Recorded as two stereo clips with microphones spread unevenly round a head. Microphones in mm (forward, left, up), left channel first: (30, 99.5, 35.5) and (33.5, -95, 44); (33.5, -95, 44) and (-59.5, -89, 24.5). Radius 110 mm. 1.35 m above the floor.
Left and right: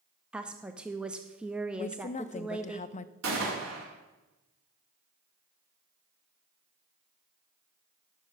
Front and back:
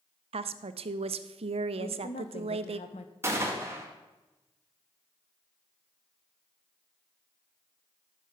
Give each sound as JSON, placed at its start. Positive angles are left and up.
{"t": 0.3, "sound": "a woman speaking", "azimuth_deg": -175, "distance_m": 0.5}
{"t": 1.8, "sound": "a woman speaking", "azimuth_deg": 35, "distance_m": 0.5}
{"t": 3.2, "sound": "a gunshot", "azimuth_deg": -120, "distance_m": 2.0}